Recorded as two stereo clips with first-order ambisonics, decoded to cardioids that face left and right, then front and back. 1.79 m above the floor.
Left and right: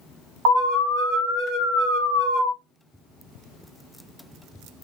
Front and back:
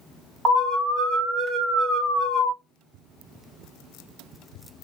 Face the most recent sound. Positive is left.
turn(degrees=-110)